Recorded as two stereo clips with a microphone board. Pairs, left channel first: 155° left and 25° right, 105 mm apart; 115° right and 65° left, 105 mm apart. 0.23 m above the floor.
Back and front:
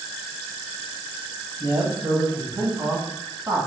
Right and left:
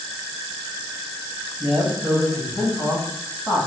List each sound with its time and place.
1.6 s a man speaking: 30° right, 1.0 m; by 3.7 s 60° right, 1.6 m